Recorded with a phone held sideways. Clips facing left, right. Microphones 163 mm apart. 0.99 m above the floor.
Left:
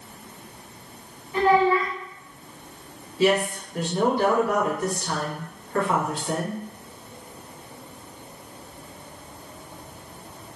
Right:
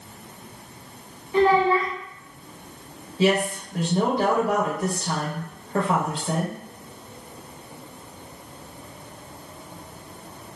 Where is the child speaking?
25° right (ahead or behind), 1.0 m.